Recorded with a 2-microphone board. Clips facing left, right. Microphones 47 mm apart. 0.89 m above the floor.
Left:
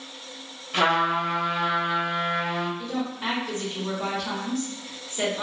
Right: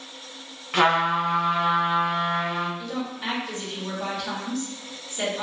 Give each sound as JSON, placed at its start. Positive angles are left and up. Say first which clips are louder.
{"t": 0.7, "sound": "a trumpet", "louder": "right 2 dB", "side_deg": -45, "distance_m": 1.2}
{"t": 2.8, "sound": "a woman speaking", "louder": "left 1 dB", "side_deg": 20, "distance_m": 1.2}